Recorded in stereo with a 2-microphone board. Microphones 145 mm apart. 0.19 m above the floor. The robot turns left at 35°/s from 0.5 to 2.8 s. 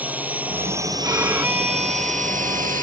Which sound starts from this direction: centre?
A drone, at 0.0 s.